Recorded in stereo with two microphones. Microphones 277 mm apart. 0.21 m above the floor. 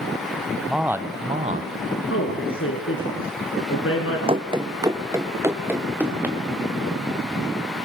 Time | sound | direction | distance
0.7 | a man speaking | centre (ahead or behind) | 1.0 m
2.1 | a man speaking | 50° left (ahead or behind) | 2.5 m
4.3 | running footsteps | 20° right (ahead or behind) | 0.9 m